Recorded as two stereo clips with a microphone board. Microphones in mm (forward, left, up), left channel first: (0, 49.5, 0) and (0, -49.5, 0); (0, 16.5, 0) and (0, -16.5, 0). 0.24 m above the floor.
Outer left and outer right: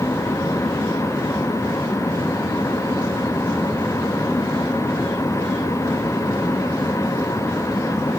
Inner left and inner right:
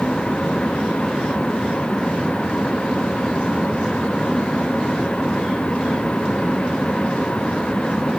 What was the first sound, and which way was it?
Only background noise.